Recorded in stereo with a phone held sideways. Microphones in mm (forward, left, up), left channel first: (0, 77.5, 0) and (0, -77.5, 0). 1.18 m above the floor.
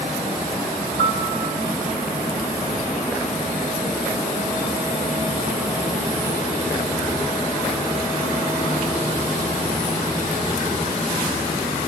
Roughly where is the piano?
Left.